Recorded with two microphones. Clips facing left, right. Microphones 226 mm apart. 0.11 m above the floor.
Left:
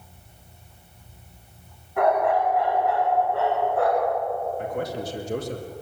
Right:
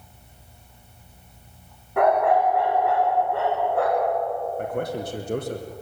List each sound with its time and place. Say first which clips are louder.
2.0 s a dog barking: right 2 dB; 85° right, 7.5 m
4.6 s a man speaking: right 1 dB; 60° right (ahead or behind), 4 m